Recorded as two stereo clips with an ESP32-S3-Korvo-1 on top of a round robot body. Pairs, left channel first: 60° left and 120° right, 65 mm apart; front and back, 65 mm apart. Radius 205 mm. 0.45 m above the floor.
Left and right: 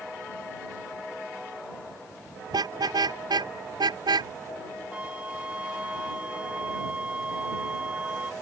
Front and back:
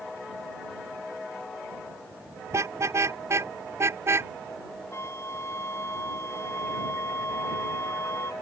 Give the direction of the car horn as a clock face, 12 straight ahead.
4 o'clock.